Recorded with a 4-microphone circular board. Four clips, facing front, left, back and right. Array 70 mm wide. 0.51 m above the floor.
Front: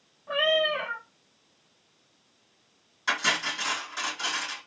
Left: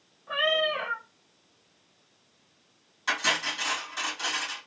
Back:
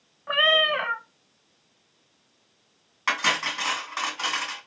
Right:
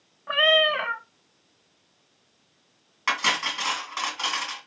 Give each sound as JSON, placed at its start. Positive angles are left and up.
{"t": 0.3, "sound": "a cat meowing", "azimuth_deg": -145, "distance_m": 0.6}
{"t": 3.1, "sound": "cutlery clinking", "azimuth_deg": -145, "distance_m": 2.5}